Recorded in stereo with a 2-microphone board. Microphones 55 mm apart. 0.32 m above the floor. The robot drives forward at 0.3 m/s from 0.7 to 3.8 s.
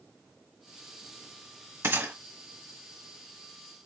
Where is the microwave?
I don't hear a microwave.